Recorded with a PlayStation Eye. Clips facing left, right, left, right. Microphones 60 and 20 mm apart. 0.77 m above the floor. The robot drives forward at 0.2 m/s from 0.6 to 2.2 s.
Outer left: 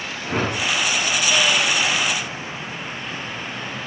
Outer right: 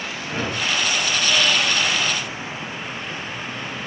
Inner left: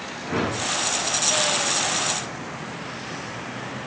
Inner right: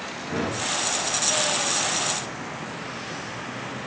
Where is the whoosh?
60° left (ahead or behind), 0.6 m; by 0.8 s 65° left (ahead or behind), 0.6 m.